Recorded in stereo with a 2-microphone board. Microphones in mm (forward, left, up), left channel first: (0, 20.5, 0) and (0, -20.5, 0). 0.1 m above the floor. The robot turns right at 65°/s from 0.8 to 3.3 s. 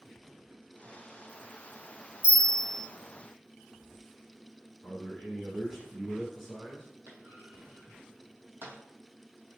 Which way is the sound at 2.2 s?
125° right.